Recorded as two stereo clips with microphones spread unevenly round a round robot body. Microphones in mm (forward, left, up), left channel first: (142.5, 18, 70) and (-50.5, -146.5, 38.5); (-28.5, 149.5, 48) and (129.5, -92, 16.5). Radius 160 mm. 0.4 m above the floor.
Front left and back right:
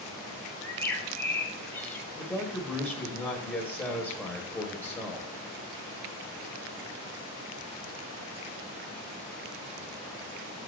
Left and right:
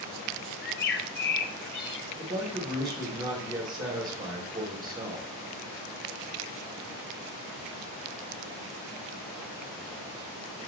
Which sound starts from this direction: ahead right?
A man speaking, at 2.2 s.